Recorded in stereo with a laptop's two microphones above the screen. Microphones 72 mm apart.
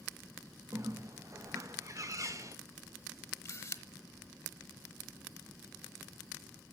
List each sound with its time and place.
0.7 s a bird: 50° right (ahead or behind), 0.6 m
3.5 s a camera shutter: 40° left (ahead or behind), 0.8 m